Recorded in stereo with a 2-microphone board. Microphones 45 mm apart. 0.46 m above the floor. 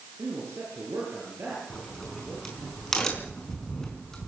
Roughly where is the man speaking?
Right.